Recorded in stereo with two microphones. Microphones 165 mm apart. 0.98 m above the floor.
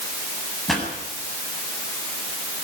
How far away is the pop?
About 8 m.